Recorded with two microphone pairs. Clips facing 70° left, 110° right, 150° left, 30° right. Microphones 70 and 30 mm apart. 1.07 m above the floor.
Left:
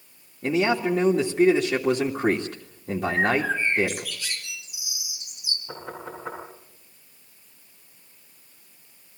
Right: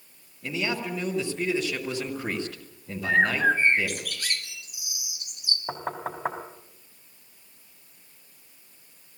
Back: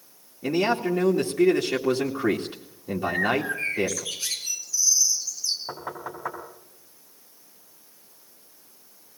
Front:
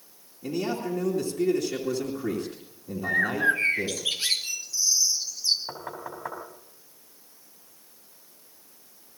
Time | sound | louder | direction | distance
0.4 | a man speaking | left 8 dB, back 6 dB | 105° left | 2.5 m
3.0 | a bird | right 1 dB, front 2 dB | 80° right | 3 m
5.7 | knocking | right 6 dB, back 2 dB | 125° right | 4.5 m